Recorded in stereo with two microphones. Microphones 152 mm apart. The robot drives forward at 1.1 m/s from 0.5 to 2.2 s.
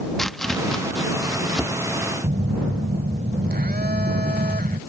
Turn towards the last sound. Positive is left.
turn(degrees=-85)